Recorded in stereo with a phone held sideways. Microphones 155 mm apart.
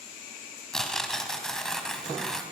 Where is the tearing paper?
5° left (ahead or behind), 2.5 m.